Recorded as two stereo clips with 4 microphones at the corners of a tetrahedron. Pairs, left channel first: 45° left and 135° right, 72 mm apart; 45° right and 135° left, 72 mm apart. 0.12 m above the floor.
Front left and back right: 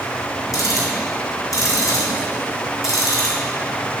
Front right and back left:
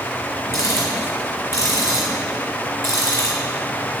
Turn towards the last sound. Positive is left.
turn(degrees=10)